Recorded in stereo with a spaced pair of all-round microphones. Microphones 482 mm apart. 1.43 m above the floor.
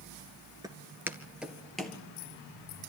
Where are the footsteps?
10° right (ahead or behind), 1.4 m; by 2.0 s centre (ahead or behind), 2.0 m.